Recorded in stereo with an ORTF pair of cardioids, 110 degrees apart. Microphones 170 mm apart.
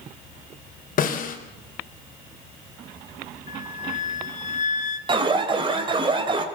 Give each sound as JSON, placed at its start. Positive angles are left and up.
{"t": 1.0, "sound": "a snare drum", "azimuth_deg": 55, "distance_m": 4.5}
{"t": 3.5, "sound": "a flute", "azimuth_deg": 45, "distance_m": 2.0}
{"t": 5.1, "sound": "an alarm", "azimuth_deg": -30, "distance_m": 4.0}